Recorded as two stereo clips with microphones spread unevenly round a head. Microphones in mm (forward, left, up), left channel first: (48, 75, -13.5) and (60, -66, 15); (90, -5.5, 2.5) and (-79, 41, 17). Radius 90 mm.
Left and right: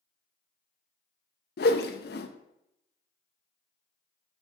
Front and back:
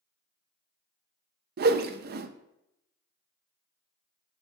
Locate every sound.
1.6 s a whoosh: 130° left, 0.6 m